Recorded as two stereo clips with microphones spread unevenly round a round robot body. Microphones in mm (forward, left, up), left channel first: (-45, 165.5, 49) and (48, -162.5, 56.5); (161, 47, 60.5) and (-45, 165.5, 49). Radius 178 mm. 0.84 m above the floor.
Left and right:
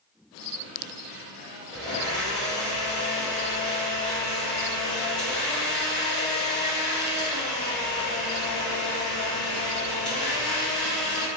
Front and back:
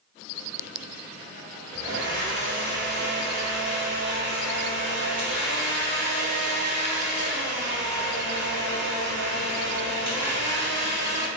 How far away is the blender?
About 0.7 m.